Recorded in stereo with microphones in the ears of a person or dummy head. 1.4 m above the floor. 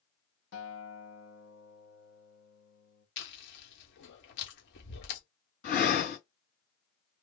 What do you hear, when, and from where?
0.5 s a guitar: 65° left (ahead or behind), 0.9 m
3.2 s chewing: 60° left (ahead or behind), 1.5 m
5.6 s breathing: 55° left (ahead or behind), 2.5 m